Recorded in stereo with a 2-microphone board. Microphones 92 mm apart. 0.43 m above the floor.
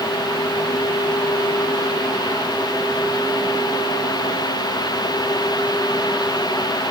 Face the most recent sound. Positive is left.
No sound to turn to.